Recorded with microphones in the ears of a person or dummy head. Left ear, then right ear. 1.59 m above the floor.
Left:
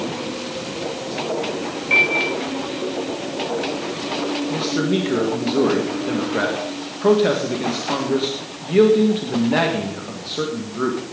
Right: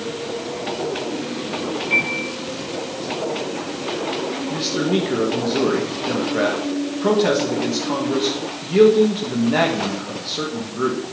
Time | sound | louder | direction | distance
1.9 | a piano | left 5 dB | 35° left (ahead or behind) | 6 m
4.5 | a man speaking | right 2 dB | 10° left (ahead or behind) | 1.7 m